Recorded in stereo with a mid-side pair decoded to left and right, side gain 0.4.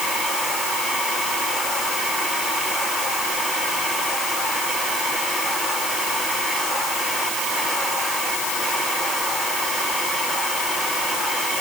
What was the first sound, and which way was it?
Only background noise.